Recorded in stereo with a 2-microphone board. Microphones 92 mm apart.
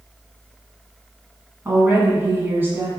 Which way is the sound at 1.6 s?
25° right (ahead or behind).